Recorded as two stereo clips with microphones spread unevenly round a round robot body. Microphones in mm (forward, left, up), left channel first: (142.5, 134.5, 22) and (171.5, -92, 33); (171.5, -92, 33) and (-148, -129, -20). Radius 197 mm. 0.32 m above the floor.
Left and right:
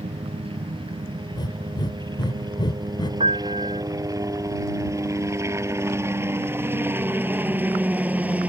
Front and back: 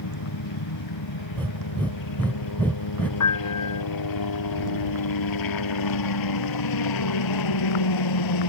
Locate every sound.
0.0 s a helicopter: 15° right; by 8.5 s straight ahead
1.3 s breathing: 110° left
3.2 s a piano: 20° right